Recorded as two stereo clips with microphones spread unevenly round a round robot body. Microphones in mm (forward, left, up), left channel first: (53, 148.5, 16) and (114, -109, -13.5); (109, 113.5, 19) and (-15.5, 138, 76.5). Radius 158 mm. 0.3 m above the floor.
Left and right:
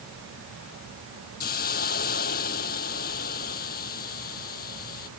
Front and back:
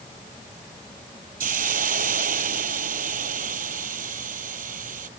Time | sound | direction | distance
1.4 | a hiss | 170° left | ?